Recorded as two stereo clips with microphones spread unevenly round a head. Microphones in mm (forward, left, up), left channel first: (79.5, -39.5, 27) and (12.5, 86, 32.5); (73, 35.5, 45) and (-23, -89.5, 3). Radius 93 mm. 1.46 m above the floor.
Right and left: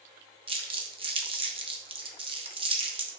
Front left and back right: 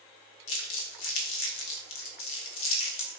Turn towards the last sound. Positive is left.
turn(degrees=60)